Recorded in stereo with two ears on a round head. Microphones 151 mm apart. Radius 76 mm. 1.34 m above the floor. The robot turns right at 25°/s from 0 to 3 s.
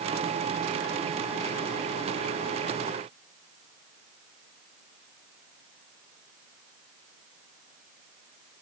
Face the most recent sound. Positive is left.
No sound to turn to.